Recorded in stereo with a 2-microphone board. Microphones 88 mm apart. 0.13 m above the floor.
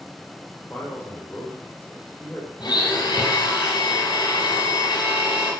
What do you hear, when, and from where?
0.7 s a man speaking: 20° left (ahead or behind), 5 m
2.6 s a blender: 55° left (ahead or behind), 5 m